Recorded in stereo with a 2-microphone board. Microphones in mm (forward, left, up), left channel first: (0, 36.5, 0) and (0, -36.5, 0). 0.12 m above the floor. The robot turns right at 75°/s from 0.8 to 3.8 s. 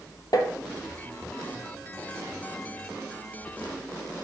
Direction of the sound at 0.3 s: 60° left (ahead or behind).